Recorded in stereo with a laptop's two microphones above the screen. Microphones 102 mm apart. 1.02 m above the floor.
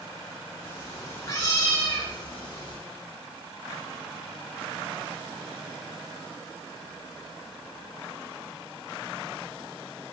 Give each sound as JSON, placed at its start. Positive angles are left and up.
{"t": 0.6, "sound": "a cat meowing", "side_deg": 25, "distance_m": 2.5}